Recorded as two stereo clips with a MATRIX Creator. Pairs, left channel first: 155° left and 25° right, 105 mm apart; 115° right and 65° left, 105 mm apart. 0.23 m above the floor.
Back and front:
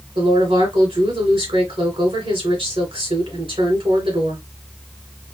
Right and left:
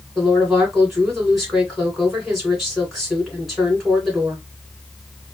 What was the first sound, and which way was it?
A woman speaking, 20° right.